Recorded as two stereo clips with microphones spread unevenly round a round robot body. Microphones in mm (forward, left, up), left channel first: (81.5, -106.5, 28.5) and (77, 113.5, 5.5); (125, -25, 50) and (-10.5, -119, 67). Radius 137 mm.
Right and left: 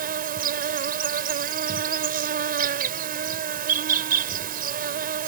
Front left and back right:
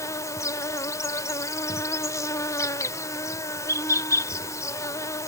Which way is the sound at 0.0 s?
95° left.